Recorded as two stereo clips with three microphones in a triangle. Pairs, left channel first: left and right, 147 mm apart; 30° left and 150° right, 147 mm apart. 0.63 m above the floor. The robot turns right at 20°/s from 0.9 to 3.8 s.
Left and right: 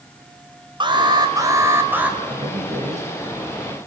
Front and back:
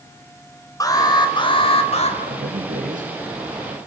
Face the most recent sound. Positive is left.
turn(degrees=-110)